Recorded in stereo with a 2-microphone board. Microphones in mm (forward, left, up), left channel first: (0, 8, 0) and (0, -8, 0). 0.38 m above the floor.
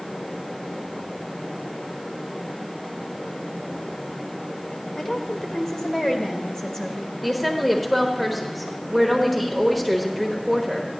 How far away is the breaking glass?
I don't hear breaking glass.